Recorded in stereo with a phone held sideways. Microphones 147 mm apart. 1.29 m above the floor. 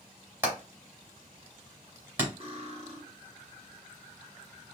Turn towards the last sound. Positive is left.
turn(degrees=-45)  # may be behind; listen again after turning